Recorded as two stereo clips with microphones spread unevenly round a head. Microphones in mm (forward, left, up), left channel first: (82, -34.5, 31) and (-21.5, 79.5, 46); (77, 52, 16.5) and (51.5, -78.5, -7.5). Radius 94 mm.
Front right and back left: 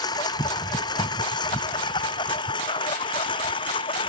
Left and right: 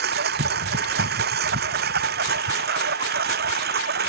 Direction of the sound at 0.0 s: 115° right.